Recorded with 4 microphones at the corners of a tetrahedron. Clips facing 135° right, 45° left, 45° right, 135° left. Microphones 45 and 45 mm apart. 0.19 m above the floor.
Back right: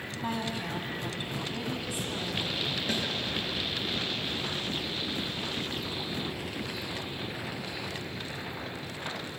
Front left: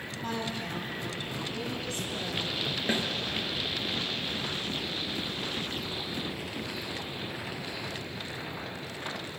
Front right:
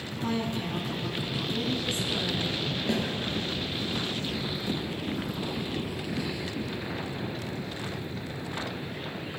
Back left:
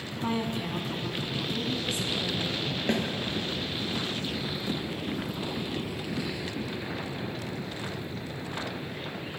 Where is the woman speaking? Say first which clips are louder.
Back right 1 dB, even; 170° left, 1.7 m; by 2.8 s 60° right, 2.5 m.